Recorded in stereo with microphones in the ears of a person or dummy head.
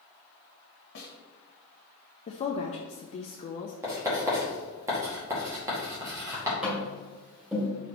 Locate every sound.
0.9 s a snare drum: 60° left (ahead or behind), 1.5 m
2.3 s a woman speaking: 35° left (ahead or behind), 0.6 m
3.8 s writing: 15° right (ahead or behind), 2.5 m
6.6 s tapping: 5° right (ahead or behind), 2 m